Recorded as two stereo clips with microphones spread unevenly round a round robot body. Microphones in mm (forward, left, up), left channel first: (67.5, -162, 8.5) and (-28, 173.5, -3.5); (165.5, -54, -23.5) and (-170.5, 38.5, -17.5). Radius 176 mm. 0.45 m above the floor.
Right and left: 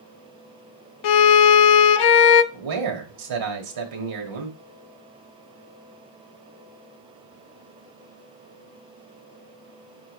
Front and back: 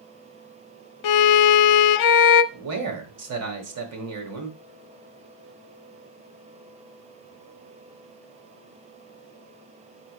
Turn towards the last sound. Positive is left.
turn(degrees=120)